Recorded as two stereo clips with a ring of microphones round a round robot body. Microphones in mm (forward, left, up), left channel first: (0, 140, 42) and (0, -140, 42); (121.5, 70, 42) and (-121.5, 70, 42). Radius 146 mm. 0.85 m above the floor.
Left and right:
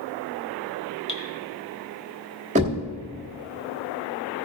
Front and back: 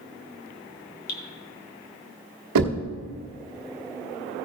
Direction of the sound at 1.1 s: 20° left.